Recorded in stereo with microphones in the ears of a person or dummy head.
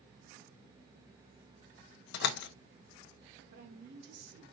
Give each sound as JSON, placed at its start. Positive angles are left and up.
{"t": 2.1, "sound": "a door slam", "side_deg": 65, "distance_m": 0.6}
{"t": 3.5, "sound": "a woman speaking", "side_deg": -60, "distance_m": 2.0}